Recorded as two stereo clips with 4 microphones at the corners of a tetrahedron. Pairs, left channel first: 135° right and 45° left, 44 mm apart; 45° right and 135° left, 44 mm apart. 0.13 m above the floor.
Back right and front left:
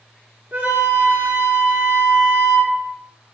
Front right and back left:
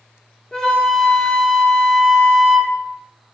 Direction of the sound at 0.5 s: 25° left.